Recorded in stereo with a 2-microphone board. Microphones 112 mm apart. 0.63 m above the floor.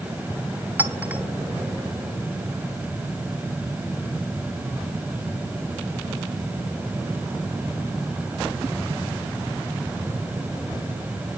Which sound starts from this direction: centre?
A clink, at 0.8 s.